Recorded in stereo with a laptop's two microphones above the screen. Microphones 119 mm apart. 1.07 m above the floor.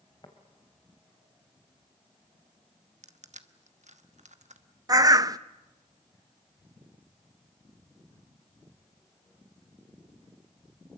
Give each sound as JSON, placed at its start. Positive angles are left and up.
{"t": 0.2, "sound": "tapping", "side_deg": 40, "distance_m": 2.5}
{"t": 3.0, "sound": "crushing", "side_deg": -75, "distance_m": 1.1}
{"t": 4.9, "sound": "a bird", "side_deg": -30, "distance_m": 0.8}